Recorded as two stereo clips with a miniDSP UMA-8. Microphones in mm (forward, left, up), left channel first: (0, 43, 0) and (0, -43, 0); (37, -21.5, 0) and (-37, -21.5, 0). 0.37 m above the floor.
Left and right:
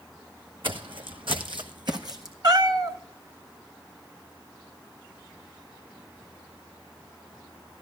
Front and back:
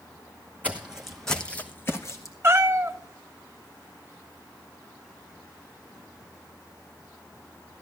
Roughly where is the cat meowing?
Behind right.